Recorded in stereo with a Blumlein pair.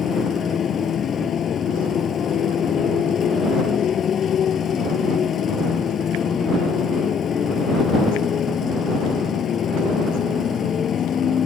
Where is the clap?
No clap in this recording.